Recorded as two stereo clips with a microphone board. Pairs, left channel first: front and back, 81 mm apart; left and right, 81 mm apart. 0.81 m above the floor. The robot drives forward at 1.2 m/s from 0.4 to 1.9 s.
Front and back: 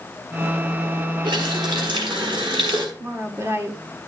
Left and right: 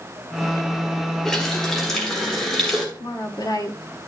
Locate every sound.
1.2 s a running tap: 175° left, 1.8 m
3.0 s a woman speaking: 125° left, 1.6 m